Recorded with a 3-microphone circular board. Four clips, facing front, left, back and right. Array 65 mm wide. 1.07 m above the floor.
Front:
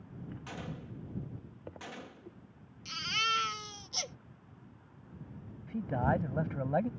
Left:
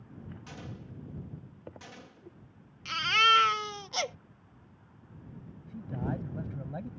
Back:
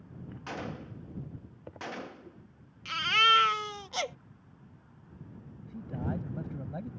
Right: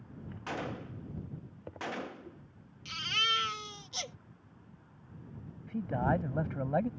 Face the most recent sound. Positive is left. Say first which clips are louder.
# right 6 dB, front 6 dB
turn(degrees=-45)